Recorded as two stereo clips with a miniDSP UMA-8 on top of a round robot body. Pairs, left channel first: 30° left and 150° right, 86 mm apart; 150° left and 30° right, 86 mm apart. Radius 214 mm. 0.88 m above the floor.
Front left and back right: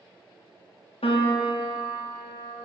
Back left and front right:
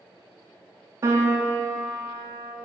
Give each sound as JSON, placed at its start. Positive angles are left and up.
{"t": 1.0, "sound": "a piano", "azimuth_deg": 25, "distance_m": 0.7}